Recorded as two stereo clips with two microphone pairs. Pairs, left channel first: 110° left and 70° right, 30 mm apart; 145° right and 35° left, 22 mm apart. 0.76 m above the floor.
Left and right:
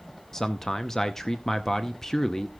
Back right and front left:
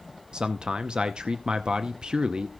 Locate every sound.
0.3 s a man speaking: 40° left, 0.6 m